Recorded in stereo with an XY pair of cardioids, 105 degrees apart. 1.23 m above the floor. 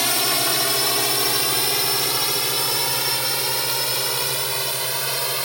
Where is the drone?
5° left; by 5.5 s 10° right.